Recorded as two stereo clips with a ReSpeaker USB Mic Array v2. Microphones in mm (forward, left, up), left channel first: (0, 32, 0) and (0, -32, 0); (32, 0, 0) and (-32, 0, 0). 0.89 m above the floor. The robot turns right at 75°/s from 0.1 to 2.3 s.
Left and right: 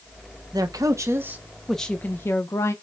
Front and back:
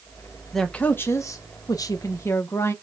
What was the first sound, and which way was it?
A man speaking, 85° right.